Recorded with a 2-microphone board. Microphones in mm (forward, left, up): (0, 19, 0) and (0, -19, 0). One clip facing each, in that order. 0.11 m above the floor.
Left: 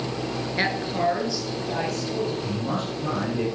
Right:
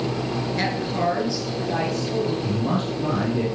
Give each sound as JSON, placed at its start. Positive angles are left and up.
{"t": 0.6, "sound": "a woman speaking", "side_deg": 20, "distance_m": 1.3}
{"t": 2.4, "sound": "a man speaking", "side_deg": -20, "distance_m": 3.5}